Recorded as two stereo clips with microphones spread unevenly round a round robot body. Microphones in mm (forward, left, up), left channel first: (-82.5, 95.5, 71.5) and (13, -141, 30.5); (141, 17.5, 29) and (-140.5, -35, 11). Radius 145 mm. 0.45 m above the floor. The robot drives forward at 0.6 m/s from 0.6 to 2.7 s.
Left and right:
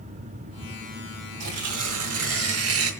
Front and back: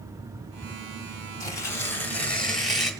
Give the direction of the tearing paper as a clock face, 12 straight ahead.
2 o'clock.